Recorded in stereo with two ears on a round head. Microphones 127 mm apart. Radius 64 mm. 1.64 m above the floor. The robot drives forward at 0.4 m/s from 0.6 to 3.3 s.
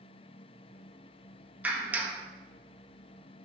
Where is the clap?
10° right (ahead or behind), 1.5 m.